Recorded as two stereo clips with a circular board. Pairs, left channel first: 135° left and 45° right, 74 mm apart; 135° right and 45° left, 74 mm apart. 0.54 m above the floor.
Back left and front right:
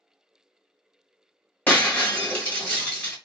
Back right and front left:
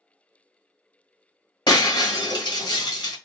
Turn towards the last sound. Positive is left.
turn(degrees=-155)